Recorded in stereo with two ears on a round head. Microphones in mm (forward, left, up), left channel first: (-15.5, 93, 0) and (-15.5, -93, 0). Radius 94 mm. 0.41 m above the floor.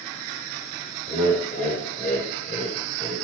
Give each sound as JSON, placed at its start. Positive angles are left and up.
{"t": 1.1, "sound": "laughter", "side_deg": 40, "distance_m": 1.7}